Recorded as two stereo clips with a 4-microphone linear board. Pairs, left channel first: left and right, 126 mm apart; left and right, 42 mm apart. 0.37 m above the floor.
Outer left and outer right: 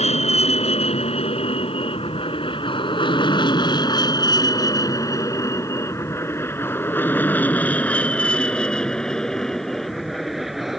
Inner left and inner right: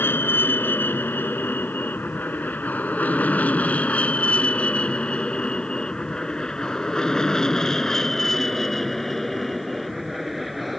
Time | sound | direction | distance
0.0 | an aircraft | 55° left (ahead or behind) | ?